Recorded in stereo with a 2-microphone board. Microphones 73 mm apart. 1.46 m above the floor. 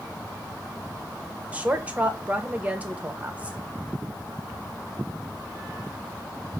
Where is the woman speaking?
15° right (ahead or behind), 0.9 m.